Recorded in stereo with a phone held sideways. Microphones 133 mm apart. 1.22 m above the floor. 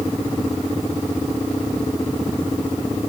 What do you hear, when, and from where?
Only background noise.